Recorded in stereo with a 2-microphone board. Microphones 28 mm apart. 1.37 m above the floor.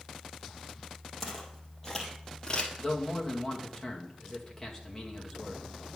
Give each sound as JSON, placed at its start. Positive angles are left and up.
{"t": 1.2, "sound": "footsteps", "side_deg": 0, "distance_m": 2.5}
{"t": 2.8, "sound": "a man speaking", "side_deg": 20, "distance_m": 2.0}